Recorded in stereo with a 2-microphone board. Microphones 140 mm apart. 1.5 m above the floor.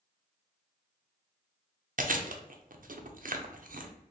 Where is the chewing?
65° right (ahead or behind), 0.5 m.